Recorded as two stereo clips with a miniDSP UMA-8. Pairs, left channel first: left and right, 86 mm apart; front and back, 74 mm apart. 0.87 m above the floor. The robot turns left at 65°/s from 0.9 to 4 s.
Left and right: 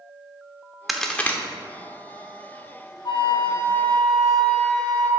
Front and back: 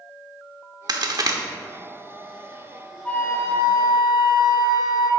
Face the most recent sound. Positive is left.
turn(degrees=10)